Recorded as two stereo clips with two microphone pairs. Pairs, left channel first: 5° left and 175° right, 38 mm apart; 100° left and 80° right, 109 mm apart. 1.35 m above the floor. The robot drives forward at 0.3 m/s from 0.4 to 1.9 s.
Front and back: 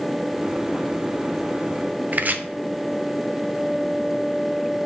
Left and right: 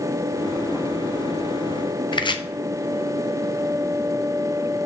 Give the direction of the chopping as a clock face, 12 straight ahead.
7 o'clock.